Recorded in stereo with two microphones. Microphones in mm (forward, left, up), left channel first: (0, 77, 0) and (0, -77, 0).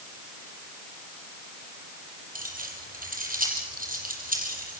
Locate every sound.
2.4 s keys jangling: 65° right (ahead or behind), 6 m